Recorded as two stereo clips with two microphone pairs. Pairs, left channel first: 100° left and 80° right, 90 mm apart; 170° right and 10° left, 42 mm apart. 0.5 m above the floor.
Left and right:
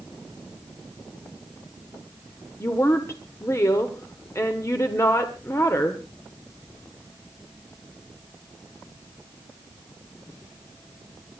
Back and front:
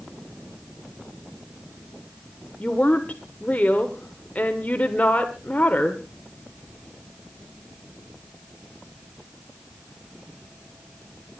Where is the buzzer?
No buzzer in this recording.